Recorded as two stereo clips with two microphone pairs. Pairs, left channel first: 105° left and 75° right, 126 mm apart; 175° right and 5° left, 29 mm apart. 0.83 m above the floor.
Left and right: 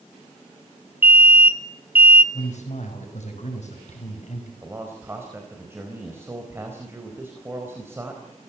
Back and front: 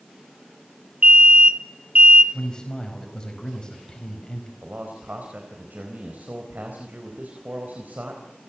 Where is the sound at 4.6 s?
5° right, 4.5 m.